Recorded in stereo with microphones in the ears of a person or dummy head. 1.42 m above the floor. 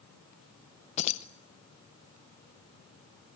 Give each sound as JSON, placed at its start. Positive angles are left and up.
{"t": 1.0, "sound": "keys jangling", "side_deg": 35, "distance_m": 0.6}